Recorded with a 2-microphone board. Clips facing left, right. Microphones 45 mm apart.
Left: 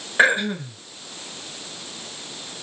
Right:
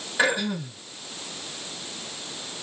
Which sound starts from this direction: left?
Throat clearing, at 0.2 s.